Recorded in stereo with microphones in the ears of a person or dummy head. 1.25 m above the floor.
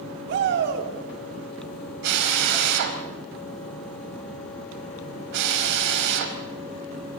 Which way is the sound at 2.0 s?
60° right (ahead or behind).